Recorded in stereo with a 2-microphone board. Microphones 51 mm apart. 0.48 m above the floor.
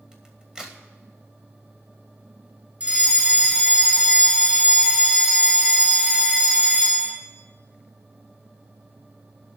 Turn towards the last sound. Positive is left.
turn(degrees=-30)  # may be behind; listen again after turning